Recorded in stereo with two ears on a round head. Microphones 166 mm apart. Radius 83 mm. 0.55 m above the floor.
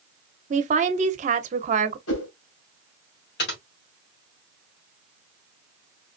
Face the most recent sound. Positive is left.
turn(degrees=60)  # may be behind; listen again after turning